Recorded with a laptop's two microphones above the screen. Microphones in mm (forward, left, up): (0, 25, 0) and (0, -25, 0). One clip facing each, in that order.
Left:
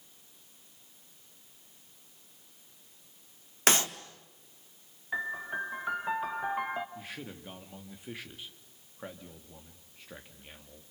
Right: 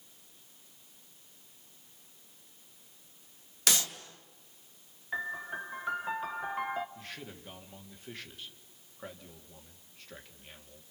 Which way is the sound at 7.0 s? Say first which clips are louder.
Left 2 dB; 10° left (ahead or behind).